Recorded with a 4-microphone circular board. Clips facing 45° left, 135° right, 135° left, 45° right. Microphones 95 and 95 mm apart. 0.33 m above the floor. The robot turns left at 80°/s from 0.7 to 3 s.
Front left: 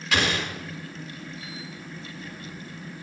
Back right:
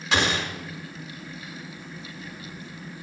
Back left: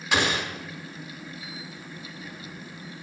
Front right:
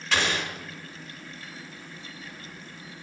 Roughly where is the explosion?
Behind.